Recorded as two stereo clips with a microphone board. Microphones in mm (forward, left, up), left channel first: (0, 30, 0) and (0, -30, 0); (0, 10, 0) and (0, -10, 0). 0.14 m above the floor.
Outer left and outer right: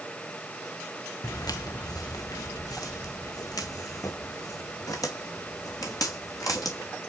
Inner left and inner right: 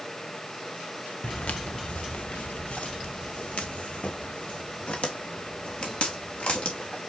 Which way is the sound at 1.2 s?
80° left.